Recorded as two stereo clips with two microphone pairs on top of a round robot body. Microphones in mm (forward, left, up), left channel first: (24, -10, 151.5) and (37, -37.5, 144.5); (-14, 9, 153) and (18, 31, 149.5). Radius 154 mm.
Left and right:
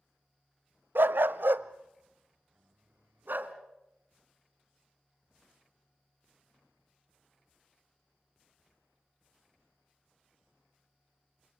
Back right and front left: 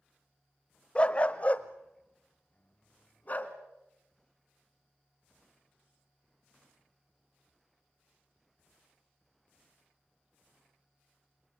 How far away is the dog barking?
About 0.5 m.